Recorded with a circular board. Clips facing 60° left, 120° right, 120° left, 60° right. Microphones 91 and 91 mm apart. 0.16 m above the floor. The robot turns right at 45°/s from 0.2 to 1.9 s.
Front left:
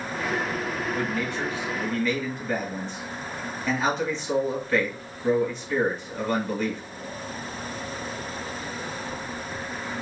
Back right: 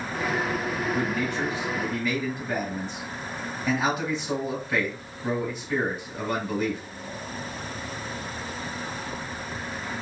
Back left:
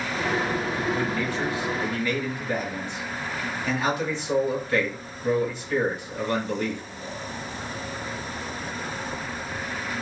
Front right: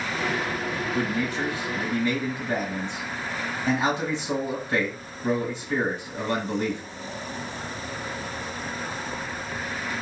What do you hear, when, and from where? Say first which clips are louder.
0.9 s a man speaking: back right 1 dB, even; 90° right, 1.2 m; by 6.8 s 50° right, 1.2 m